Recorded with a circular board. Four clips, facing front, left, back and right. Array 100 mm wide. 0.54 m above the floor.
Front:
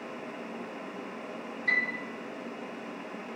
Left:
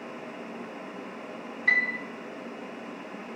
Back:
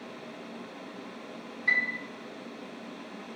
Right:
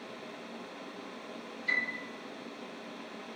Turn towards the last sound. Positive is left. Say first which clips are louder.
# left 8 dB, back 1 dB
turn(degrees=105)